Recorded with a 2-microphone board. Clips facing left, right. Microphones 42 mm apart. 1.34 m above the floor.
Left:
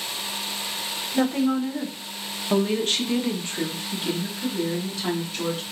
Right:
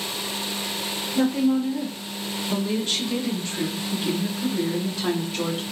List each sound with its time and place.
1.1 s a woman speaking: 60° left (ahead or behind), 1.2 m; by 5.6 s 20° right (ahead or behind), 1.4 m